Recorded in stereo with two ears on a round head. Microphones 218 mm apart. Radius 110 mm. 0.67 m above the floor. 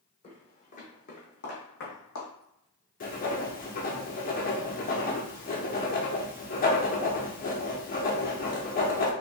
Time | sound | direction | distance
0.2 | footsteps | 25° left (ahead or behind) | 1.9 m
3.0 | writing | 35° left (ahead or behind) | 1.0 m